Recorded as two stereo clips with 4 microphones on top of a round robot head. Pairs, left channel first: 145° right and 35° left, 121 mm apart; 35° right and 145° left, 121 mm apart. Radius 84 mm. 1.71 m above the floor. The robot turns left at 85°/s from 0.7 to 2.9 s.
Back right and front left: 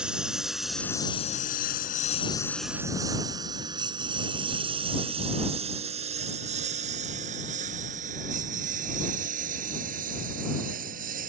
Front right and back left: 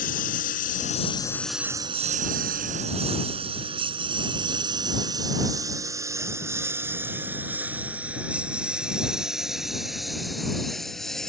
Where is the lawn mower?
45° right; by 11.3 s 50° left.